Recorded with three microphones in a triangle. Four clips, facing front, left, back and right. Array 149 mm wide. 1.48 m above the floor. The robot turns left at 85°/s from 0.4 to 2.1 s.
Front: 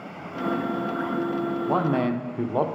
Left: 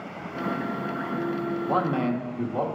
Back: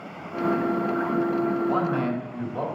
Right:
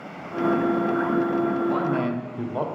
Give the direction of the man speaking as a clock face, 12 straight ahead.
11 o'clock.